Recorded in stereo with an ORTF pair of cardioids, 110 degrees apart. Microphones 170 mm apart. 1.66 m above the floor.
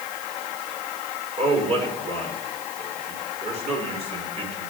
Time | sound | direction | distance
1.4 | a man speaking | 40° right | 5.5 m